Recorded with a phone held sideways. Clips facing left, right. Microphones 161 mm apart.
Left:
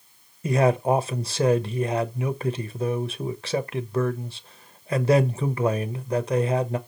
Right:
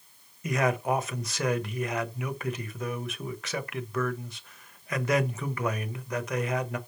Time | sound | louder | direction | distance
0.4 | a man speaking | left 6 dB | 30° left (ahead or behind) | 0.9 m